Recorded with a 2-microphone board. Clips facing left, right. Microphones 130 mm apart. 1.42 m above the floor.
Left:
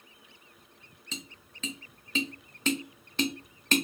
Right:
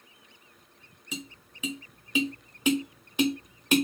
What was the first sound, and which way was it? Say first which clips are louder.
Tapping: right 5 dB; 10° right (ahead or behind).